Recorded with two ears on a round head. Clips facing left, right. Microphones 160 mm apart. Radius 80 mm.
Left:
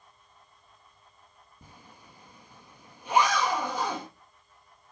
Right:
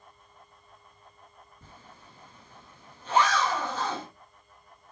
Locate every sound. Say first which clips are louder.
1.6 s a zipper: left 1 dB; 10° left (ahead or behind), 1.5 m